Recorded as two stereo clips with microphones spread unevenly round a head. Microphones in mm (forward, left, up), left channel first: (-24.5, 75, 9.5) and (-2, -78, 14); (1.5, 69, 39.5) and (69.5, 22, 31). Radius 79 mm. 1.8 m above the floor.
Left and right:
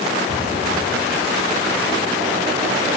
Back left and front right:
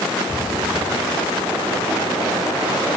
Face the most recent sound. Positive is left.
turn(degrees=-90)